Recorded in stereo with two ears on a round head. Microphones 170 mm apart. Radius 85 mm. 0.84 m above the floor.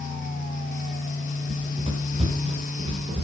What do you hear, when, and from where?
1.5 s running footsteps: 30° right (ahead or behind), 3.5 m